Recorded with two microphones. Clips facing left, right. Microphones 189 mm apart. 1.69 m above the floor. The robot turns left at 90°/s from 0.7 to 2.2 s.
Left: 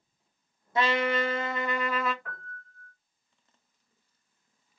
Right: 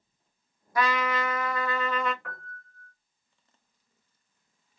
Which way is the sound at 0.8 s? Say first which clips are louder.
Left 1 dB; 25° left (ahead or behind).